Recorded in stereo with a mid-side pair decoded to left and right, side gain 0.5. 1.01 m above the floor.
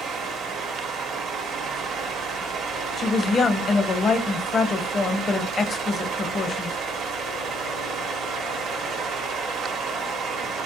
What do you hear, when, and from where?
0.0 s a fan: 65° right, 0.9 m
3.0 s a woman speaking: 40° left, 0.6 m